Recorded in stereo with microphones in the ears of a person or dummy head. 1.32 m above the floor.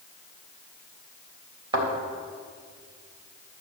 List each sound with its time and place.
1.7 s a thud: 30° right (ahead or behind), 3.5 m